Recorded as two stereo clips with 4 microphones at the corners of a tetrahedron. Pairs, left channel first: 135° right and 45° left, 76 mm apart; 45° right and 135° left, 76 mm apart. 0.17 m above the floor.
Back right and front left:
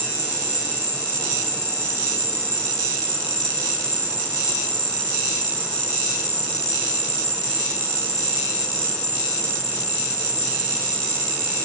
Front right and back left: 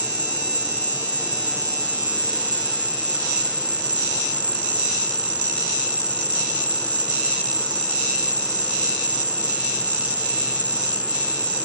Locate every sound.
0.0 s an insect: 5° left